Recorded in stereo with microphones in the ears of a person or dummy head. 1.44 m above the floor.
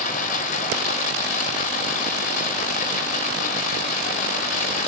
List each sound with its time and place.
0.0 s running water: 40° left (ahead or behind), 0.9 m